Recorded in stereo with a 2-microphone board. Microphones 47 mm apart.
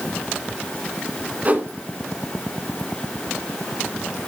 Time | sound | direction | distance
1.4 | a whoosh | 35° right (ahead or behind) | 1.6 m